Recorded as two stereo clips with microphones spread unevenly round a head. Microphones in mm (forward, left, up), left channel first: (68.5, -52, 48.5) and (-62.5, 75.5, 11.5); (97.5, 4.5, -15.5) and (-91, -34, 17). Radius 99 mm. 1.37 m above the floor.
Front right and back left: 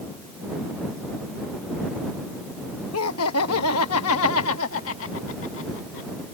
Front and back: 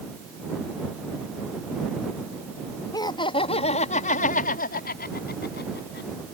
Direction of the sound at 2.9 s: 60° right.